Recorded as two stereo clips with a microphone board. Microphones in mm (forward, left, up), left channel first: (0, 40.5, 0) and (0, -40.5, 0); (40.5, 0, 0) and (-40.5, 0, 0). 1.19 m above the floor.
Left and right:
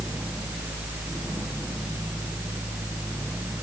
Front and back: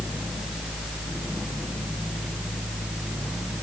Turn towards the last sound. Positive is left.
No sound to turn to.